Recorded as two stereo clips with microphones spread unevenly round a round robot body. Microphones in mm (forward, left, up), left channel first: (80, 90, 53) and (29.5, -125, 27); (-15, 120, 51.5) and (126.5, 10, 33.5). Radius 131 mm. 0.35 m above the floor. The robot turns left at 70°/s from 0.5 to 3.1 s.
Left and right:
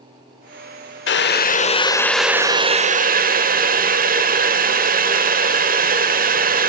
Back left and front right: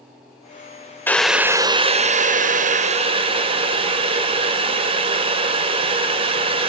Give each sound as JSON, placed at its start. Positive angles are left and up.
{"t": 1.1, "sound": "boiling", "azimuth_deg": 60, "distance_m": 1.1}